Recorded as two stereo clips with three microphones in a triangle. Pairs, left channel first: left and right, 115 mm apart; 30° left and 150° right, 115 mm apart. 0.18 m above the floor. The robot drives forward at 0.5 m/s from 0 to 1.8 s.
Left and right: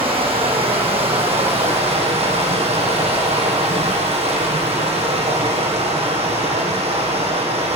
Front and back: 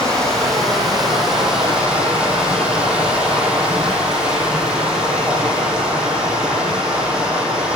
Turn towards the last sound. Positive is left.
turn(degrees=-70)